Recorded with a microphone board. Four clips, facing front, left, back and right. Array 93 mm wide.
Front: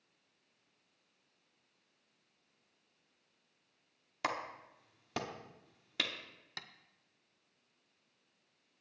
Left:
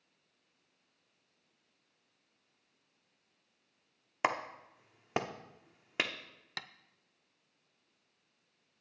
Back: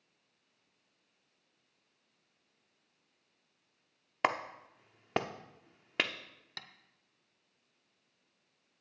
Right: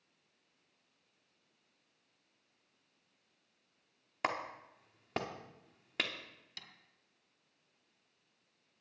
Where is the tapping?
85° left, 0.7 m.